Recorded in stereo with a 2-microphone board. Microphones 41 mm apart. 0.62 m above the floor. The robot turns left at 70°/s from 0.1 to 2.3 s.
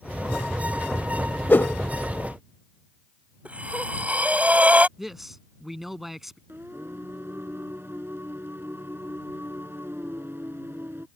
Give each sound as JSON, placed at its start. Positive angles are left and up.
{"t": 1.5, "sound": "a whoosh", "side_deg": 60}
{"t": 3.5, "sound": "breathing", "side_deg": -35}
{"t": 5.0, "sound": "a man speaking", "side_deg": -5}
{"t": 6.5, "sound": "singing", "side_deg": -70}